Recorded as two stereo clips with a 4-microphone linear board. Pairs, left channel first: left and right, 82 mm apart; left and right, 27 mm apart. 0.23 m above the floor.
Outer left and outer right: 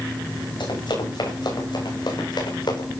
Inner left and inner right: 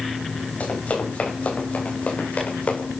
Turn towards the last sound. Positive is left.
turn(degrees=70)  # may be behind; listen again after turning